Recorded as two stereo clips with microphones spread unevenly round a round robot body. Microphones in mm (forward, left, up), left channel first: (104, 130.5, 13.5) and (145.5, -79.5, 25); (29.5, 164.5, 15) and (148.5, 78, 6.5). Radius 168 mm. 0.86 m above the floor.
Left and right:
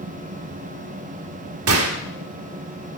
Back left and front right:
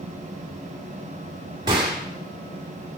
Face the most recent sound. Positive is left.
turn(degrees=-110)